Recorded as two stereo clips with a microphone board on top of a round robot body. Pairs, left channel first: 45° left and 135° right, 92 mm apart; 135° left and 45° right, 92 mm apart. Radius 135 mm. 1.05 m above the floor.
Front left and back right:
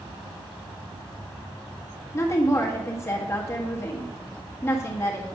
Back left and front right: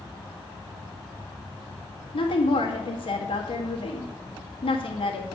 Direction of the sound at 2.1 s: 110° left.